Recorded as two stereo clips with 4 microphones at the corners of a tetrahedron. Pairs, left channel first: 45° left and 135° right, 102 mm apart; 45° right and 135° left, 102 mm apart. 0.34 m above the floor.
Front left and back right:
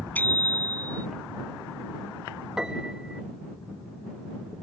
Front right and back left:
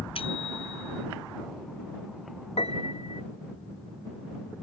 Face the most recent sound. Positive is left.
turn(degrees=-50)